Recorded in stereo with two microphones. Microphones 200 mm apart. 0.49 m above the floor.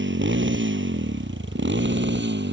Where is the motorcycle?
80° right; by 2.5 s 70° right (ahead or behind).